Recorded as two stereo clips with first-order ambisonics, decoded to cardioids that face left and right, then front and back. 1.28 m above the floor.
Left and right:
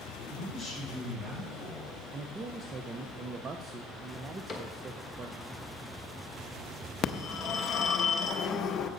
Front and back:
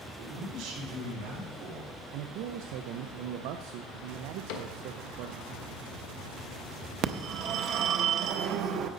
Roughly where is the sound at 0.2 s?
Behind.